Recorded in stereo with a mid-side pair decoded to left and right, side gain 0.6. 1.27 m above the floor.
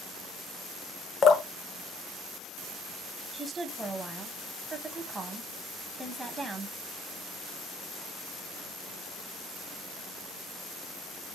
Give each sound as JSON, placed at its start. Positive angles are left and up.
{"t": 1.2, "sound": "dripping", "azimuth_deg": 40, "distance_m": 0.8}
{"t": 3.3, "sound": "a woman speaking", "azimuth_deg": -20, "distance_m": 0.8}